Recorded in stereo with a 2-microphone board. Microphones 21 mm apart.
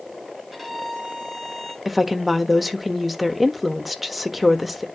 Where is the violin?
5° right (ahead or behind), 7.5 m.